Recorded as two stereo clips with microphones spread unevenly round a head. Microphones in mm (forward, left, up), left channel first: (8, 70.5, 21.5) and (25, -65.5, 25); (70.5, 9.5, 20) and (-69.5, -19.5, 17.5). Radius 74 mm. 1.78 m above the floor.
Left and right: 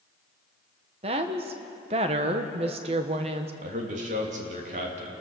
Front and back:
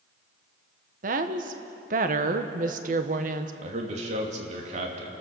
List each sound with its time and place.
1.0 s a woman speaking: 135° right, 1.3 m
3.6 s a man speaking: 125° right, 3 m